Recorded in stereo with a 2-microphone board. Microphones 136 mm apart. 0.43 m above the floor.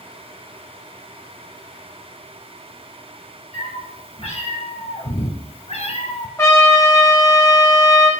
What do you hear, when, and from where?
3.5 s a cat meowing: 50° left (ahead or behind), 3 m; by 6.3 s 60° left (ahead or behind), 0.8 m
6.4 s a trumpet: 20° left (ahead or behind), 1.4 m